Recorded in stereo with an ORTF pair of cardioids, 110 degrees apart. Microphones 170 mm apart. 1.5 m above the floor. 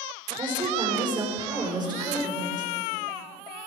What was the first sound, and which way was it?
A woman speaking, 25° right.